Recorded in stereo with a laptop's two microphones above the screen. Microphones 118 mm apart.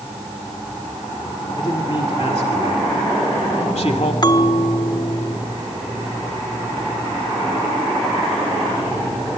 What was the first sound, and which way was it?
A man speaking, 40° left (ahead or behind).